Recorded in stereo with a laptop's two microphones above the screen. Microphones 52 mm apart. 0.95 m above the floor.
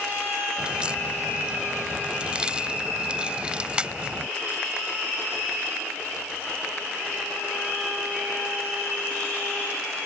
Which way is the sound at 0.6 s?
20° right (ahead or behind).